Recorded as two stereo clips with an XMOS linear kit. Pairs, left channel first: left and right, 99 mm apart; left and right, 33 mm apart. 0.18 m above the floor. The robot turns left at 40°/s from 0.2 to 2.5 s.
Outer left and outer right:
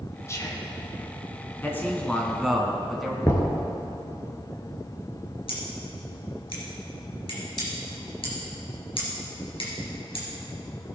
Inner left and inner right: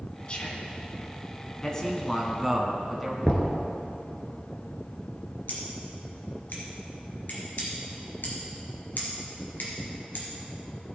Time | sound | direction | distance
0.3 | whispering | 30° left (ahead or behind) | 1.5 m
1.6 | a man speaking | 40° left | 1.6 m
3.2 | knocking | 30° left (ahead or behind) | 1.7 m
5.5 | scissors | 65° left (ahead or behind) | 3 m